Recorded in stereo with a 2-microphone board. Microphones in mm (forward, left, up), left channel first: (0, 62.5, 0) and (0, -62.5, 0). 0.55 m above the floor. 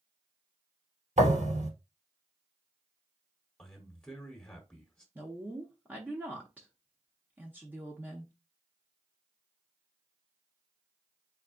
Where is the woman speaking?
15° right (ahead or behind), 0.7 m.